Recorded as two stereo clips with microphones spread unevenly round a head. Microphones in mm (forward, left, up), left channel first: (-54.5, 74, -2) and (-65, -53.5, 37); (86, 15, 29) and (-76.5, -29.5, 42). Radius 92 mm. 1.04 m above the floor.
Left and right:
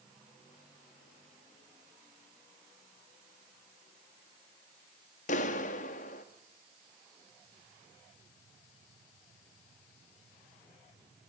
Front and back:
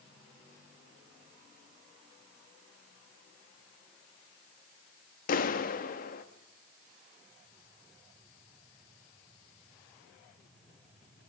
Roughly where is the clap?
Ahead left.